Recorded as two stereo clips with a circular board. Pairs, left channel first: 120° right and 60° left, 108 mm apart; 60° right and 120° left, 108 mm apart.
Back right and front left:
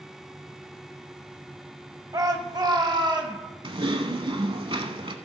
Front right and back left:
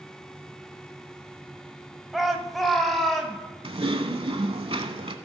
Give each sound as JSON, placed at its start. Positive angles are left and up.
{"t": 2.1, "sound": "a shout", "azimuth_deg": 35, "distance_m": 1.2}
{"t": 3.6, "sound": "typing on a keyboard", "azimuth_deg": 95, "distance_m": 0.8}